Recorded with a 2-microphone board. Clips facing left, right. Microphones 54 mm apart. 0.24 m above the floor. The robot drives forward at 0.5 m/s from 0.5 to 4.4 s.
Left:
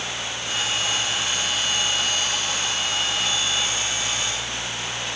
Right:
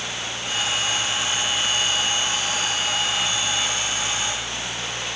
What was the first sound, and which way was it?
Only background noise.